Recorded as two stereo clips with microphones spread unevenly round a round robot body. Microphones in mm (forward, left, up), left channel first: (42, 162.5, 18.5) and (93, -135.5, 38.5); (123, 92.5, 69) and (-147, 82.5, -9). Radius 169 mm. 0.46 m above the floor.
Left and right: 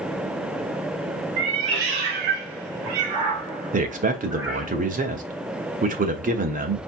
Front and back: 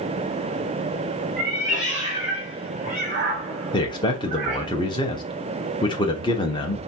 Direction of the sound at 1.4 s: 85° right.